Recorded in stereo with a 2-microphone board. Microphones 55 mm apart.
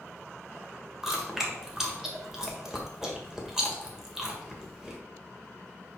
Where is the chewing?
10° right (ahead or behind), 1.7 m.